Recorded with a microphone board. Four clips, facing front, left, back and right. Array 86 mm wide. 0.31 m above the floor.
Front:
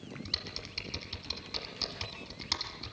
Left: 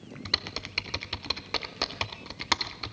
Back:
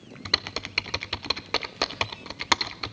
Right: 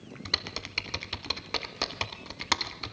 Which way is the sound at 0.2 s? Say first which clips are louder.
Even, back 11 dB; 175° left.